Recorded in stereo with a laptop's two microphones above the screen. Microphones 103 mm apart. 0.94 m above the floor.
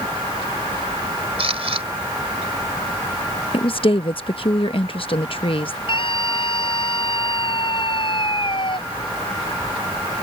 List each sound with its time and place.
1.4 s a camera shutter: 70° right (ahead or behind)
3.5 s a woman speaking: 60° left (ahead or behind)
5.9 s a scream: 55° left (ahead or behind)